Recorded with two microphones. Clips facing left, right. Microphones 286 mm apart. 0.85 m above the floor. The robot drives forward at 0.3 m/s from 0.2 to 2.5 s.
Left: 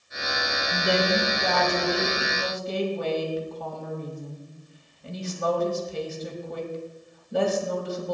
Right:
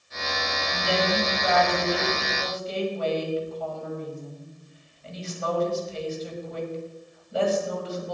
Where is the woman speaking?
50° left (ahead or behind), 5 m; by 8.1 s 60° left (ahead or behind), 4.5 m.